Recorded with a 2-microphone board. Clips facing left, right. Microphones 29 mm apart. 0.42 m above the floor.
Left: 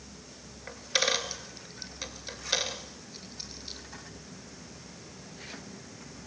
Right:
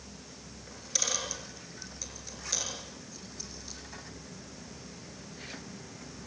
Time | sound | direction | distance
0.7 | a dropped coin | 50° left (ahead or behind) | 2.5 m